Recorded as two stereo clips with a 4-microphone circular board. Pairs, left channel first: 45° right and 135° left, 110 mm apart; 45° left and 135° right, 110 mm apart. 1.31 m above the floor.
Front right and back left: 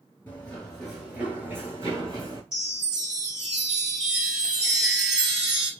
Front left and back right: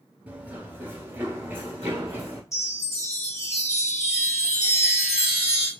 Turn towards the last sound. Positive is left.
turn(degrees=60)